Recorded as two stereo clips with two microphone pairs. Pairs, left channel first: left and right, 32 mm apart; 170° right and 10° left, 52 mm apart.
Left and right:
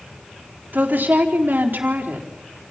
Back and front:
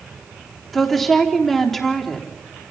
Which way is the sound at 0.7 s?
85° right.